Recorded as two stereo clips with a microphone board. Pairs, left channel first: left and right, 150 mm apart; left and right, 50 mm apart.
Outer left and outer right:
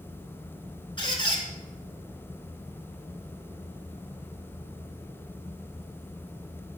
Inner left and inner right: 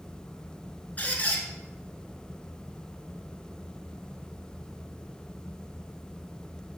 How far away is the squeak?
About 1.3 m.